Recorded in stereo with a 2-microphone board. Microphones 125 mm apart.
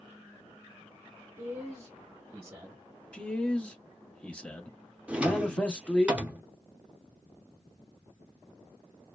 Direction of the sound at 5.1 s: 10° right (ahead or behind).